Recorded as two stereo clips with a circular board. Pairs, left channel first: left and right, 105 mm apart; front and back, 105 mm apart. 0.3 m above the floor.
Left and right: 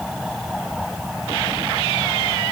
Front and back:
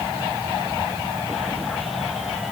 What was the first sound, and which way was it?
Only background noise.